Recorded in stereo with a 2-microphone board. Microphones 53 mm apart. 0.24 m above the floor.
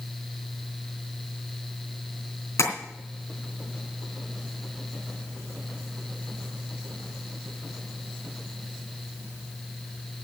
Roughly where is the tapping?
Left.